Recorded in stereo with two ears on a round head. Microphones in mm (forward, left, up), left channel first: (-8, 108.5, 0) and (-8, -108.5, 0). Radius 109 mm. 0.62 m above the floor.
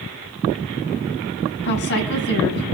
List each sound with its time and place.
1.6 s a woman speaking: 50° left (ahead or behind), 5 m